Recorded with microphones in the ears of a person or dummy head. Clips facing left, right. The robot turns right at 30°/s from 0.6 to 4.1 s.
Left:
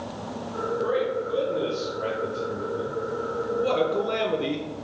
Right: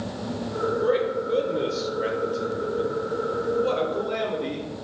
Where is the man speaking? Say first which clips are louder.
Right 1 dB; 55° right, 0.6 m; by 4.7 s 45° left, 0.6 m.